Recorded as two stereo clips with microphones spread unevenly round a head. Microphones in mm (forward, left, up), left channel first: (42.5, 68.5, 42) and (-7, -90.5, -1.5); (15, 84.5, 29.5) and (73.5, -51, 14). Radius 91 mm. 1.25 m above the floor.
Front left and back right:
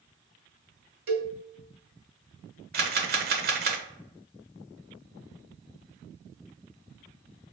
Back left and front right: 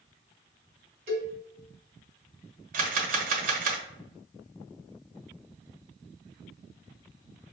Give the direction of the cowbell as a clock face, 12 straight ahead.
4 o'clock.